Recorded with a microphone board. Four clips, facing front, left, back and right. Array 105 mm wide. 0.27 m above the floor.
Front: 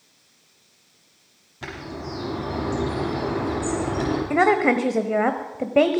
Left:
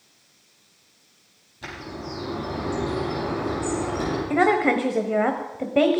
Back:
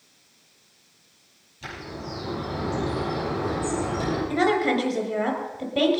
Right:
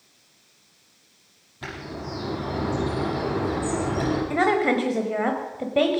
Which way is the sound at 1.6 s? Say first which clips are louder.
Right 1 dB, front 3 dB; 30° right.